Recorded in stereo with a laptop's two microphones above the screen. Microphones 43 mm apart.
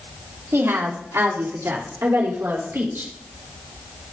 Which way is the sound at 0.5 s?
70° right (ahead or behind).